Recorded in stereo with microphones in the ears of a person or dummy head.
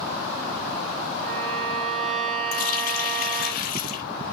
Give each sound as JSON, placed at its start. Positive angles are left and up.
{"t": 1.2, "sound": "a violin", "side_deg": -45, "distance_m": 4.5}
{"t": 2.5, "sound": "a running tap", "side_deg": 50, "distance_m": 1.0}